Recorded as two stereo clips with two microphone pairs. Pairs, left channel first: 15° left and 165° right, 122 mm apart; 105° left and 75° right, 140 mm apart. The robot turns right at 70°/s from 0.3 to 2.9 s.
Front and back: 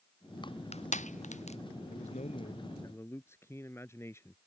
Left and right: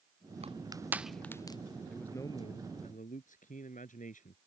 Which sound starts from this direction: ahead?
A man speaking, at 1.9 s.